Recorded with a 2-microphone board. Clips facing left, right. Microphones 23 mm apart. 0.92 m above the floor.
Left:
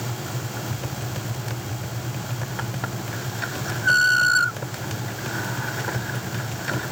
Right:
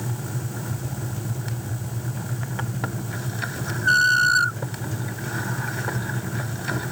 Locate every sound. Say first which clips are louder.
0.7 s tapping: left 1 dB; 90° left, 0.5 m